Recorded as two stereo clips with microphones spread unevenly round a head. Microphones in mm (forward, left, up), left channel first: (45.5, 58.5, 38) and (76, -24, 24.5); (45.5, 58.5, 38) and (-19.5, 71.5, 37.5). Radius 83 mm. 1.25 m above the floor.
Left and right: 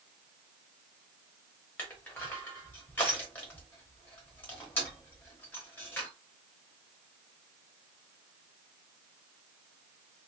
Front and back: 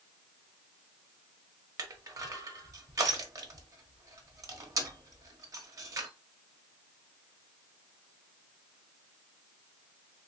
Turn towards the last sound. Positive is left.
turn(degrees=-175)